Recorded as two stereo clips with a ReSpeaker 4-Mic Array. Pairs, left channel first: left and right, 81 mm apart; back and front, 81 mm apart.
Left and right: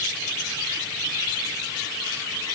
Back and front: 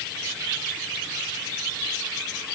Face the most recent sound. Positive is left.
No sound to turn to.